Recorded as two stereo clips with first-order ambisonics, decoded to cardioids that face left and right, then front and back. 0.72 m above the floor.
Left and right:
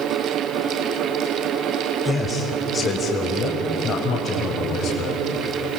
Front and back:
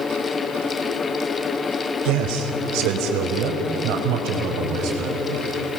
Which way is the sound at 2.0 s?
170° left.